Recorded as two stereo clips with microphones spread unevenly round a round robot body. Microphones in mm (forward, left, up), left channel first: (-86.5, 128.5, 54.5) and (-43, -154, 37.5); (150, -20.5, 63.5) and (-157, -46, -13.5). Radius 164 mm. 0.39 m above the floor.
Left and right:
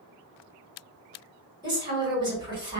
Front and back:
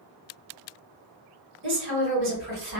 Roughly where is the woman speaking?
Behind right.